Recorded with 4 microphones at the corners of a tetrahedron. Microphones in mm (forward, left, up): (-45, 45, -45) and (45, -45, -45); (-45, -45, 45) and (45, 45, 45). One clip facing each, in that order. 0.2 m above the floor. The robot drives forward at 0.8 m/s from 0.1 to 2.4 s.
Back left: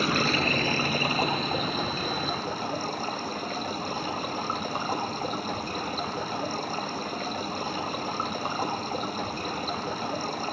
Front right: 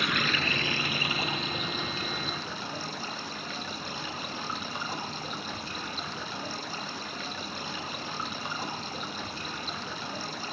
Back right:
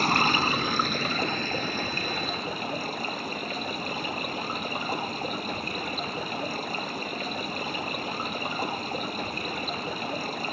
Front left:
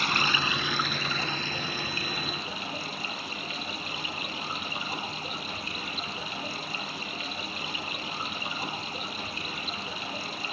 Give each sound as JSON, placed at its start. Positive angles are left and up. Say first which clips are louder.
{"t": 0.0, "sound": "running water", "louder": "back left 5 dB, back right 5 dB", "azimuth_deg": 180, "distance_m": 0.7}